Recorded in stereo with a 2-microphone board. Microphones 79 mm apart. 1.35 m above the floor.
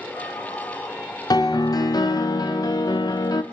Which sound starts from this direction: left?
A piano, at 1.3 s.